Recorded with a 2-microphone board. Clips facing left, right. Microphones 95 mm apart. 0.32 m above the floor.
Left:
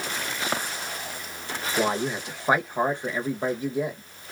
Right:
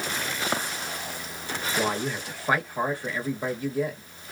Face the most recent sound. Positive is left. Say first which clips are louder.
# left 3 dB
turn(degrees=20)  # may be behind; listen again after turning